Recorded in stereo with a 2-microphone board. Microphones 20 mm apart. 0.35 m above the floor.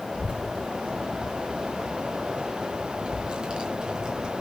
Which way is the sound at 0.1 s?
70° right (ahead or behind).